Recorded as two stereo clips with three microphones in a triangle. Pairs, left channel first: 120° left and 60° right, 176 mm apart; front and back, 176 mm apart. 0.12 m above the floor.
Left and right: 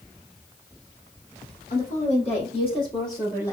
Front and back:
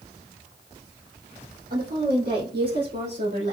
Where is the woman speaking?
155° left, 3.5 m; by 3.5 s 170° right, 3.5 m.